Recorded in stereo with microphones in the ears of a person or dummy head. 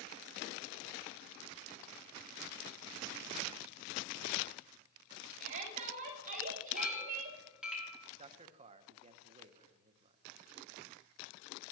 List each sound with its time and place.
5.4 s a shout: 45° right (ahead or behind), 6 m; by 7.4 s 50° right (ahead or behind), 4.5 m
6.8 s a clink: 5° right (ahead or behind), 4.5 m
8.2 s a man speaking: 30° right (ahead or behind), 1.0 m